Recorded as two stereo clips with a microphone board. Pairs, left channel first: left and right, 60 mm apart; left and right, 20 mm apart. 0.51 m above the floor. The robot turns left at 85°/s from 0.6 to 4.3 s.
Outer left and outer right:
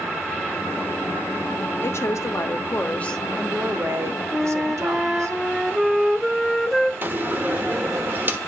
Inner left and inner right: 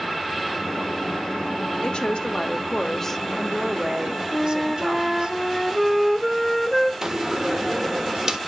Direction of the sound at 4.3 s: Centre (ahead or behind).